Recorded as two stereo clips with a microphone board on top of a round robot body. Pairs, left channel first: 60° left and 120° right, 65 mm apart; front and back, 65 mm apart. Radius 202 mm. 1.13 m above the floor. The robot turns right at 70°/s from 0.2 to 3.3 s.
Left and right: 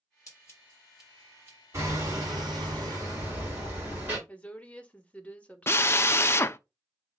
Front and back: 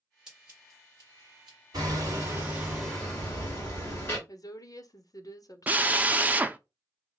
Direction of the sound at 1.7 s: 165° right.